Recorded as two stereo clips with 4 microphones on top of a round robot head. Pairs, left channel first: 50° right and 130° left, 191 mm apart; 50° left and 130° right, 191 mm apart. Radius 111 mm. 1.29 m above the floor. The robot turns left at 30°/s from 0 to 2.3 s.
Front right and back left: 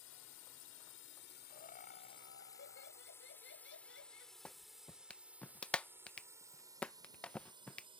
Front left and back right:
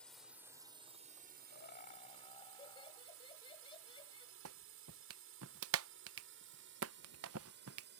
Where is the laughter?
10° left; by 4.3 s 15° right.